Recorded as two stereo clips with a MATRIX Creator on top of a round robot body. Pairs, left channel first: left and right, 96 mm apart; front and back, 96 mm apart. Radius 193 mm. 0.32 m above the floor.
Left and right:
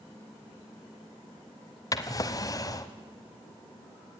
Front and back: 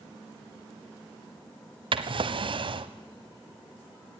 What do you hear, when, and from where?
1.9 s a drawer: 145° left, 1.0 m